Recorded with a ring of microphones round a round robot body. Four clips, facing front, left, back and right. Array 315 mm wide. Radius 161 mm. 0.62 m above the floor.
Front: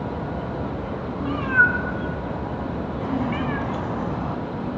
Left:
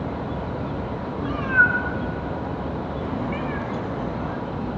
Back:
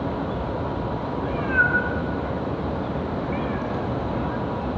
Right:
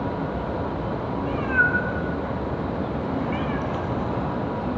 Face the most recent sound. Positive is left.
turn(degrees=-40)